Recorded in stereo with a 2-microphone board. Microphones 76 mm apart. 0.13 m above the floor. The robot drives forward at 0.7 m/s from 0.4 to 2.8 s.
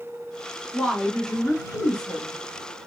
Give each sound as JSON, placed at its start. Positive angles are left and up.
{"t": 0.7, "sound": "a woman speaking", "side_deg": 10, "distance_m": 1.6}